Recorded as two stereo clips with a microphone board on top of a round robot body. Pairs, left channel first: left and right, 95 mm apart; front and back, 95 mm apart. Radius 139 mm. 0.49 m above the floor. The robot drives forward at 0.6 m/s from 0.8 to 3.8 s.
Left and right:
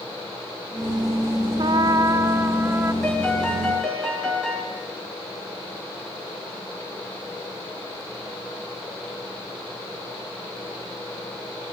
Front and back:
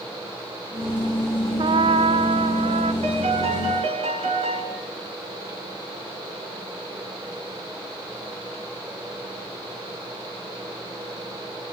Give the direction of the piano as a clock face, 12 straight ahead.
6 o'clock.